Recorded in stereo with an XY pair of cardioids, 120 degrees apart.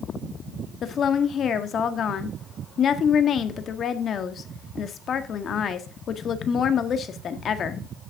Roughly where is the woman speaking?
Ahead left.